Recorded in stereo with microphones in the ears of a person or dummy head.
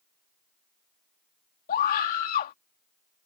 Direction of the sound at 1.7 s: 50° left (ahead or behind).